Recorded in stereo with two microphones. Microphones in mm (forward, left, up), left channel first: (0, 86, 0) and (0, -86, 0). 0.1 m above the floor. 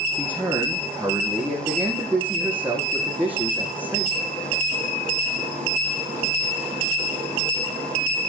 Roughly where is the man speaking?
Centre.